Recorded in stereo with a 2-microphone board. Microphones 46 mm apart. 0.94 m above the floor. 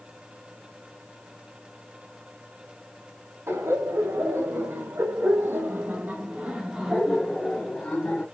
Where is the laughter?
75° right (ahead or behind), 1.9 m; by 8.2 s 20° left (ahead or behind), 1.4 m.